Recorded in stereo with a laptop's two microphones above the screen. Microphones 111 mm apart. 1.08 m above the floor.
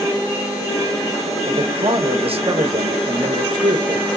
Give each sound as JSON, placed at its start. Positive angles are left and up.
{"t": 1.5, "sound": "a man speaking", "side_deg": -60, "distance_m": 1.0}